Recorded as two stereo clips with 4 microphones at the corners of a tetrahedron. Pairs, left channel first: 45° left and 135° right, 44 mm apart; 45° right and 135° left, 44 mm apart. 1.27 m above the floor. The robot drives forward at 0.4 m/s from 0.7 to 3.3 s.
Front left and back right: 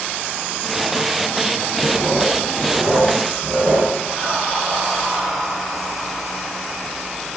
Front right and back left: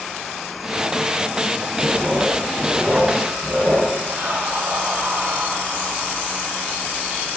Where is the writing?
Straight behind, 2.5 m.